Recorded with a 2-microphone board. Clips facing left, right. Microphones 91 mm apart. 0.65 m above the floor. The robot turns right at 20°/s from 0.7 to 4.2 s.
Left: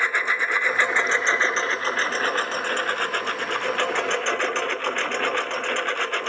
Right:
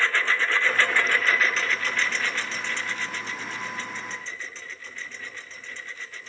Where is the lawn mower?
15° left; by 6.3 s 85° left.